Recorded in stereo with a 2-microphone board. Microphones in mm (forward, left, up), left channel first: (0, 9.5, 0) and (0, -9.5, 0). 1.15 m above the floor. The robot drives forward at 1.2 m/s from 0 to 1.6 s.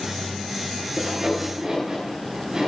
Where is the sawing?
35° right (ahead or behind), 5.5 m; by 2.7 s 30° right (ahead or behind), 6 m.